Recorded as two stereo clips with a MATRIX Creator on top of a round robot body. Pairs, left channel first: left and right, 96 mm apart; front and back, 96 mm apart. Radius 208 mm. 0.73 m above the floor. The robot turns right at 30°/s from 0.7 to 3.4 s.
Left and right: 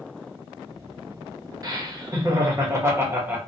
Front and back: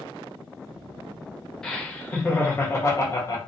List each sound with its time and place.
1.6 s laughter: 80° right, 1.0 m; by 3.4 s 30° right, 1.0 m